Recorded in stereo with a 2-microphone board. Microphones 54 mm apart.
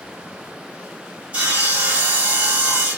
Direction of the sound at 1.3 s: 25° right (ahead or behind).